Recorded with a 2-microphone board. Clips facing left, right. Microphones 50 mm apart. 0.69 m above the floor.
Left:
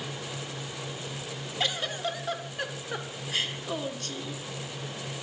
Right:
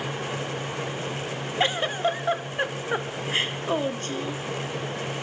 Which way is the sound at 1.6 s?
30° right (ahead or behind).